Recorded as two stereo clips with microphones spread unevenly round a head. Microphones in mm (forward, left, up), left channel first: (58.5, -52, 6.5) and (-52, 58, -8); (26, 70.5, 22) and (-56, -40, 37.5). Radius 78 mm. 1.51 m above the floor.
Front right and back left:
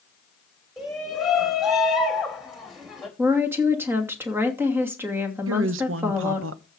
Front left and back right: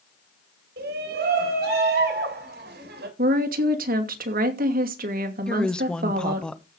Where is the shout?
140° right, 6 m; by 3.1 s 135° right, 4.5 m.